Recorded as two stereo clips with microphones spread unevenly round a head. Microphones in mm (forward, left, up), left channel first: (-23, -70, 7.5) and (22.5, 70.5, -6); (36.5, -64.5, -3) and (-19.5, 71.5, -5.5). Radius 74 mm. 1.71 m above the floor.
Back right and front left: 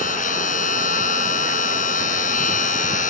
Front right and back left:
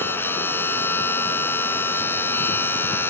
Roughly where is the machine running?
Behind right.